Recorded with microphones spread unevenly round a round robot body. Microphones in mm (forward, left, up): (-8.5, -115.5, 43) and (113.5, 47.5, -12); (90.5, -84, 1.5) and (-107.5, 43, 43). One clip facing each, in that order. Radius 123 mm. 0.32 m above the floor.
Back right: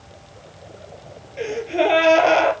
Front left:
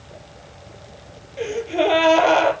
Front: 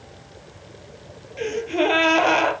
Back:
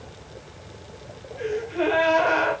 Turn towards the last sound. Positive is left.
turn(degrees=-35)